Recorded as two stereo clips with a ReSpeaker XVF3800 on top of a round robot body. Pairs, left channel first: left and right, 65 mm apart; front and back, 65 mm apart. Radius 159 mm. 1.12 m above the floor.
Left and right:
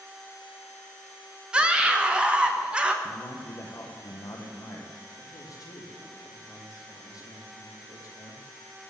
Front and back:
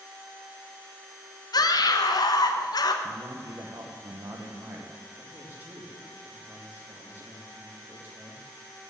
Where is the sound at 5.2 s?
115° left, 2.5 m.